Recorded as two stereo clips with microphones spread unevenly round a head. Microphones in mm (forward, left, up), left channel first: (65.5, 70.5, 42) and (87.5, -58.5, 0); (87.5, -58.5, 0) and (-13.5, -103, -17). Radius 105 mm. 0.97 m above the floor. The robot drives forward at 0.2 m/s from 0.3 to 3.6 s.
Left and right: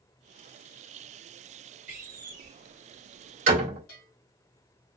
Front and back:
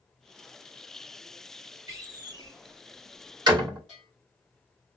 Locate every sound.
1.9 s a door slam: 100° right, 1.5 m; by 3.8 s 110° right, 1.6 m
3.9 s a bell: 115° left, 2.5 m